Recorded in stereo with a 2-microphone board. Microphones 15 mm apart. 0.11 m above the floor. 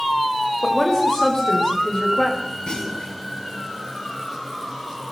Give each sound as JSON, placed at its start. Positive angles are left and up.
{"t": 0.6, "sound": "a woman speaking", "side_deg": 25, "distance_m": 9.0}
{"t": 2.7, "sound": "a clunk", "side_deg": 45, "distance_m": 10.0}